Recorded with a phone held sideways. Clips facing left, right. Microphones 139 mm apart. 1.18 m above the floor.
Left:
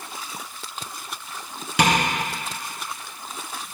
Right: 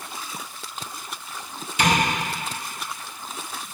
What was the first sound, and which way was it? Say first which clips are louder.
Tapping: left 2 dB; 75° left (ahead or behind).